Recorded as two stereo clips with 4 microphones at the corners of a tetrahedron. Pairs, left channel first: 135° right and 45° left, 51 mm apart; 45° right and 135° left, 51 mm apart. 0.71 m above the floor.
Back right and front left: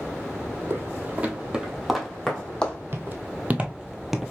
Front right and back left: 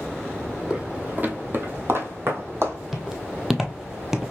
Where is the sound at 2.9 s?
50° left, 0.9 m; by 4.3 s 165° left, 0.7 m.